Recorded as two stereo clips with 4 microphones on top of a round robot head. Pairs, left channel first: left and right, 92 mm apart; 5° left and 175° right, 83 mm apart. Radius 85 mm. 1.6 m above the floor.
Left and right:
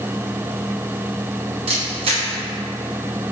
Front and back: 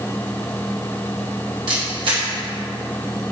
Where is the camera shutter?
130° right, 1.9 m.